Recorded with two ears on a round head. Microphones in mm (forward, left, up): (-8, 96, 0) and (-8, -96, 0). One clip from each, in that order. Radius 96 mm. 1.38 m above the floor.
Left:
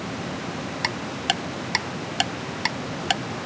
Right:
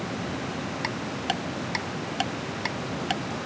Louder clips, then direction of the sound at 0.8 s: Left 5 dB; 35° left (ahead or behind).